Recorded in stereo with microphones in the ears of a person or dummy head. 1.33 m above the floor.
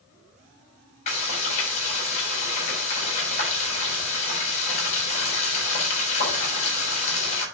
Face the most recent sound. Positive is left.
turn(degrees=40)  # may be behind; listen again after turning